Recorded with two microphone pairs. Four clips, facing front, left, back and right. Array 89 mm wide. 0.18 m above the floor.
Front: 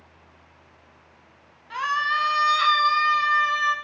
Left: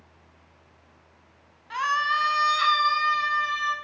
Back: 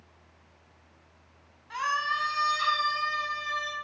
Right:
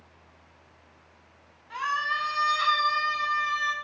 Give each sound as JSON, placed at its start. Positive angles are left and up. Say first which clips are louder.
{"t": 1.7, "sound": "a scream", "louder": "left 4 dB, front 5 dB", "azimuth_deg": 70, "distance_m": 1.1}